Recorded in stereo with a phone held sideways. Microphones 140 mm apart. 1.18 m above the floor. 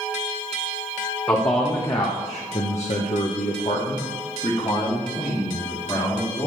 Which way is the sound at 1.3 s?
20° left (ahead or behind).